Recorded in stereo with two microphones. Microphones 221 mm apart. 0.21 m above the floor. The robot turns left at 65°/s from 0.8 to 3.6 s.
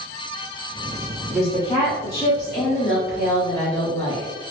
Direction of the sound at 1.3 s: 170° right.